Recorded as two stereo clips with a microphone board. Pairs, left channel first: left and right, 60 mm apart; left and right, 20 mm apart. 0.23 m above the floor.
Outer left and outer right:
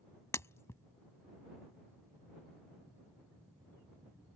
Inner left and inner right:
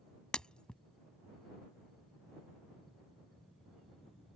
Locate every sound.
0.3 s breaking glass: 50° left (ahead or behind)